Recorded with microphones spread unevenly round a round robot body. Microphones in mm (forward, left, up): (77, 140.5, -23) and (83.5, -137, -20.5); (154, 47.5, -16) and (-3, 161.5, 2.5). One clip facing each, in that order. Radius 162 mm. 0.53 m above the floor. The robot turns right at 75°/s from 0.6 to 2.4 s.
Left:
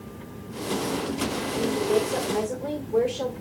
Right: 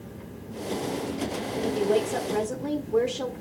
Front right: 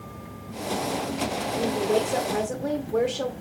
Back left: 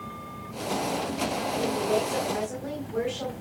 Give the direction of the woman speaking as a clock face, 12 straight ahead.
4 o'clock.